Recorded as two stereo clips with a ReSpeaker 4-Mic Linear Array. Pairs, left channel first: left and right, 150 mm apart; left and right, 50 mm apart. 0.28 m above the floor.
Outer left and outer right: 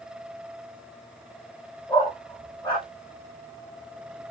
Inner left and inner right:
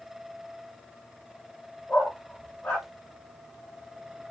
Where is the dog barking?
25° left (ahead or behind), 3 m.